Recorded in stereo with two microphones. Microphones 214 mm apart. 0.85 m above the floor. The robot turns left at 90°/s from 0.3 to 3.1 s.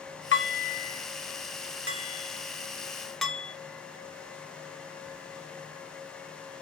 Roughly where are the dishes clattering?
Left.